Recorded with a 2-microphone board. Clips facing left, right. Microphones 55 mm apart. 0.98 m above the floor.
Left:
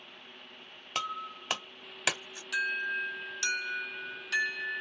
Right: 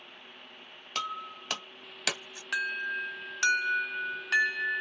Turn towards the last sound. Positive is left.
turn(degrees=-50)  # may be behind; listen again after turning